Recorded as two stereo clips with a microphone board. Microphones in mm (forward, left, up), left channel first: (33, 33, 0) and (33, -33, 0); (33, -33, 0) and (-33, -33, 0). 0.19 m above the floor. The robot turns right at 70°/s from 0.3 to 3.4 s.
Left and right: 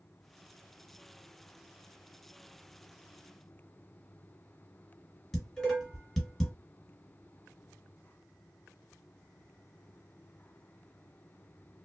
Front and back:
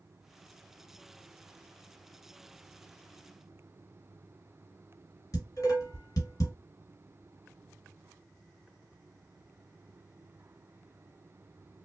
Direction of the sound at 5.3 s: 5° left.